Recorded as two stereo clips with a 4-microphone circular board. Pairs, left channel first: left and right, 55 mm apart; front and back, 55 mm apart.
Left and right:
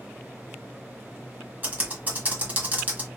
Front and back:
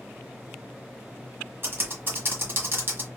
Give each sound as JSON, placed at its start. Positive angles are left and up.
{"t": 1.6, "sound": "typing on a keyboard", "azimuth_deg": -145, "distance_m": 1.3}